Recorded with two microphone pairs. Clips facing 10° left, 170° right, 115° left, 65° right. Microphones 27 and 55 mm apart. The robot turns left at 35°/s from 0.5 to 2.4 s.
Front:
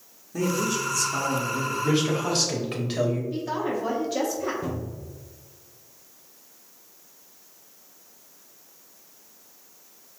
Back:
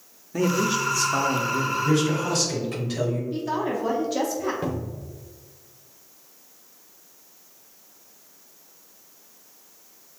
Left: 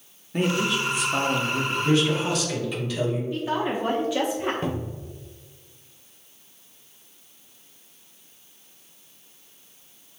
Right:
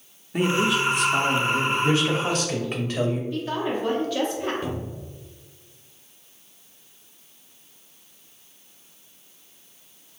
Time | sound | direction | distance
0.3 | a man speaking | 145° right | 0.7 m
1.8 | a man speaking | 10° right | 1.4 m
3.3 | a woman speaking | 85° left | 0.7 m
4.6 | a cupboard door | 160° left | 0.9 m